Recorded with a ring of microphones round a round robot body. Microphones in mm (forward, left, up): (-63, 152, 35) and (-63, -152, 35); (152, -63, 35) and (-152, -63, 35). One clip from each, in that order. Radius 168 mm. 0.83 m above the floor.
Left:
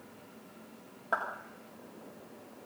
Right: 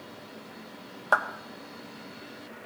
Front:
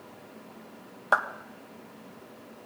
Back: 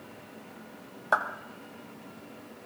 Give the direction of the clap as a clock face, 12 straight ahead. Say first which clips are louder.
Right 8 dB, front 2 dB; 2 o'clock.